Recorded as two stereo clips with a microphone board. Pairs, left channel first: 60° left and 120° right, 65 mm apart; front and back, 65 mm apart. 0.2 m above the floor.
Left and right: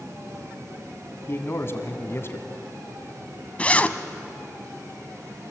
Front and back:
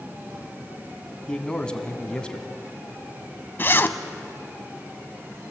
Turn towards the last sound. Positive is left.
turn(degrees=10)